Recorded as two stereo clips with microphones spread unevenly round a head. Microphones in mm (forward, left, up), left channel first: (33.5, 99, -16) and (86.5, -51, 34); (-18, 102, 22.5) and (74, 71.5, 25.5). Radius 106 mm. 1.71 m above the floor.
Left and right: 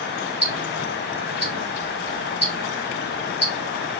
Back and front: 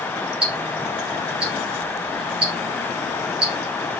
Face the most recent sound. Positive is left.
turn(degrees=10)